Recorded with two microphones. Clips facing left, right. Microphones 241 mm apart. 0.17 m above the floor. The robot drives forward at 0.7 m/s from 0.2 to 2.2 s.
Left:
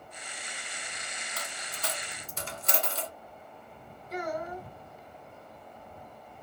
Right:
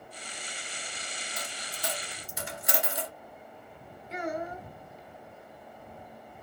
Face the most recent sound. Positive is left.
turn(degrees=-25)  # may be behind; listen again after turning